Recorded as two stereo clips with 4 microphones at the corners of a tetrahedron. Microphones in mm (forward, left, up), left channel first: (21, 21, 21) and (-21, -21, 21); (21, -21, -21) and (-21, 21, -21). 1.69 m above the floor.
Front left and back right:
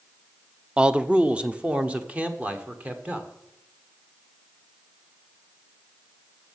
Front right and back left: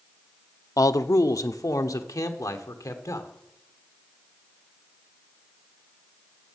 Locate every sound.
0.8 s a man speaking: 60° right, 0.6 m; by 3.3 s 70° right, 1.9 m